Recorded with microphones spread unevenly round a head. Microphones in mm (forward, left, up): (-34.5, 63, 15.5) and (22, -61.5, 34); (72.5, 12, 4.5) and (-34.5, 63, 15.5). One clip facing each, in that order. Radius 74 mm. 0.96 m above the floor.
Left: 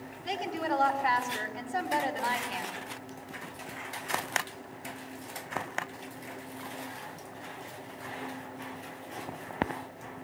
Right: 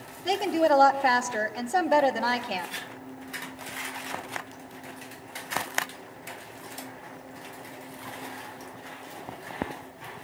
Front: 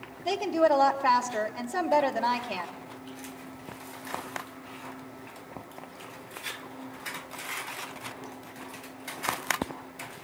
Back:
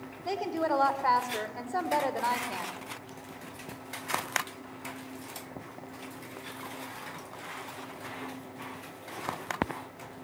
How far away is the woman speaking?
About 3 m.